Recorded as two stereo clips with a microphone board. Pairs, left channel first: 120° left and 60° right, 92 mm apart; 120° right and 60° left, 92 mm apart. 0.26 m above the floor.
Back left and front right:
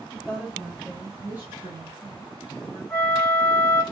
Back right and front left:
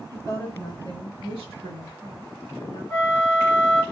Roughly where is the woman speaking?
Behind.